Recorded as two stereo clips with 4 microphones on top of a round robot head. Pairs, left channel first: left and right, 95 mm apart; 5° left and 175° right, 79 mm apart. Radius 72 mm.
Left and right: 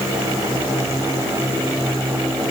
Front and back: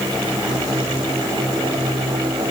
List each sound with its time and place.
Only background noise.